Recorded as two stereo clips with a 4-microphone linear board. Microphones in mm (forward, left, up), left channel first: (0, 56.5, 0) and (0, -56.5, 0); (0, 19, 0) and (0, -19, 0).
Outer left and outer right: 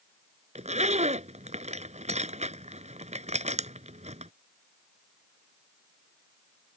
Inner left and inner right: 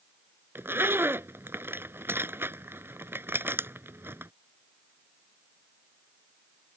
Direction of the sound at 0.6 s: 85° right.